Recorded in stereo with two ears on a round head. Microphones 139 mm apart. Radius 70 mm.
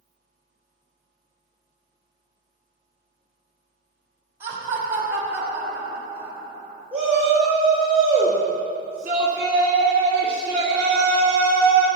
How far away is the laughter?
About 5 m.